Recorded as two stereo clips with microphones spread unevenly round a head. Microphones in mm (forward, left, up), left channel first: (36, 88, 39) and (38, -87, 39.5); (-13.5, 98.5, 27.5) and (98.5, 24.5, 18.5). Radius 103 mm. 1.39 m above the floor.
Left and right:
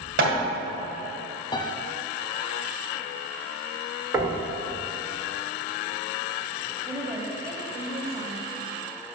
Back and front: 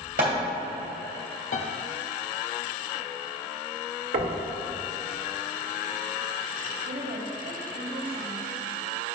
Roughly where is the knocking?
Ahead.